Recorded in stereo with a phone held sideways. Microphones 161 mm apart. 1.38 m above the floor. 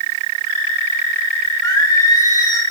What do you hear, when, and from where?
1.6 s singing: 25° left (ahead or behind), 1.0 m